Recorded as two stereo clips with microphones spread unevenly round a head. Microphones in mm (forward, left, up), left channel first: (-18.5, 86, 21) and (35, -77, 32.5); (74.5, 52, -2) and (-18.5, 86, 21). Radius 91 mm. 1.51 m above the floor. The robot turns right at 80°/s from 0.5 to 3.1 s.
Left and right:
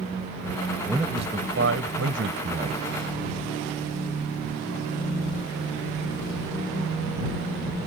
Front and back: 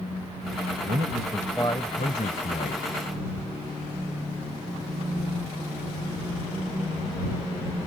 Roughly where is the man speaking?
Behind.